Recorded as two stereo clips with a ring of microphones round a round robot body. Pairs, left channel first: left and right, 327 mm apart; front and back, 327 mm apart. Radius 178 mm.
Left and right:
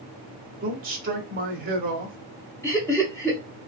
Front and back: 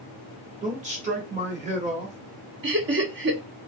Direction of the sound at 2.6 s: 165° left.